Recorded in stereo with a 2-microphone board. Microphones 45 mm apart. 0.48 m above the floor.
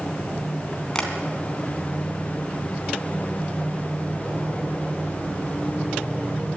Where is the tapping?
20° left (ahead or behind), 3 m.